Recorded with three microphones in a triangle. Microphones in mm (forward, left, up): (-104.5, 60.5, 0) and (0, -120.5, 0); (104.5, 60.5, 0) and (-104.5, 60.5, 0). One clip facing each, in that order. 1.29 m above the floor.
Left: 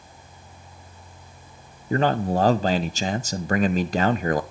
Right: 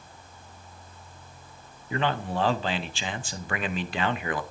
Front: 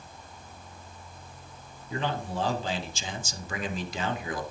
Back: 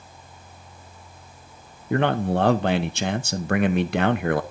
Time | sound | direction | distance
1.9 | a man speaking | 165° left | 0.6 m